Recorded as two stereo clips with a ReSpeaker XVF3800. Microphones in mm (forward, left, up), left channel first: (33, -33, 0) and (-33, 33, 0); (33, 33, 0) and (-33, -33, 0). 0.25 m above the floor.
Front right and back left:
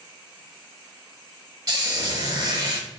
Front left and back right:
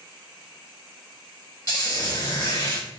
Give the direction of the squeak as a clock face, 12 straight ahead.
9 o'clock.